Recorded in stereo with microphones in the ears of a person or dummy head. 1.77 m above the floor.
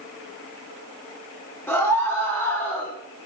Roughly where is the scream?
Centre.